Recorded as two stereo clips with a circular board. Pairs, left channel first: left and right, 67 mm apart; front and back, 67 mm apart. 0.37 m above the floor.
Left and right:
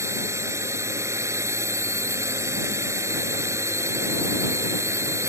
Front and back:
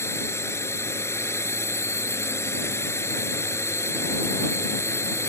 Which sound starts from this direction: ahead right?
A drone, at 0.0 s.